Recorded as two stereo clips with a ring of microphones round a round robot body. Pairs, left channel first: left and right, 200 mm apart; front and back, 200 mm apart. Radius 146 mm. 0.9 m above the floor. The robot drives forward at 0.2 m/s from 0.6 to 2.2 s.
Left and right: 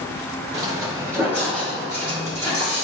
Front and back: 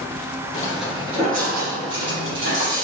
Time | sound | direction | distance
0.5 | footsteps | 40° right | 0.9 m